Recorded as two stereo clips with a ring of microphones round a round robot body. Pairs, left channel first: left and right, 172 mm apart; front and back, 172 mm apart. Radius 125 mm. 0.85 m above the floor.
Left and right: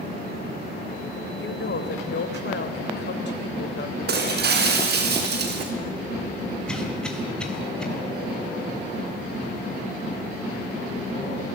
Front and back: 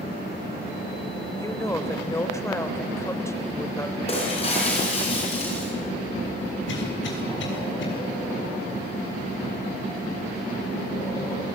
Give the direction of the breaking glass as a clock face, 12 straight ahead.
2 o'clock.